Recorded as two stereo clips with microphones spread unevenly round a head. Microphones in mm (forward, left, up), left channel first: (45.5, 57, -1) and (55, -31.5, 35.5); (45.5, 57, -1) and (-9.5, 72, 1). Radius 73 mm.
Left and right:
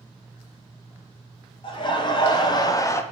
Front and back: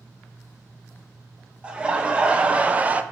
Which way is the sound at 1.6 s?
95° left.